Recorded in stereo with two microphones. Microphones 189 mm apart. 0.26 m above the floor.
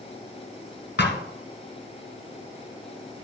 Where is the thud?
70° left (ahead or behind), 1.9 m.